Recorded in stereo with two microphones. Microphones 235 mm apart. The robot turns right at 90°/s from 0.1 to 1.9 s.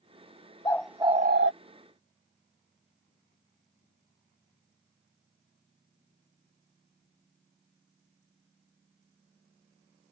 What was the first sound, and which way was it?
A bird, 160° left.